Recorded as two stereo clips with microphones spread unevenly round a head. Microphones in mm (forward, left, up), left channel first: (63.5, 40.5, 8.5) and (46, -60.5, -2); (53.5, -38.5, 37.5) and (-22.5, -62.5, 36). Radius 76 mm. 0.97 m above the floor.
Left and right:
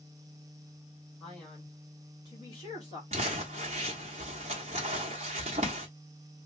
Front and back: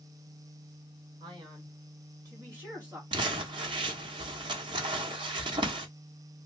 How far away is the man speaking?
About 1.9 m.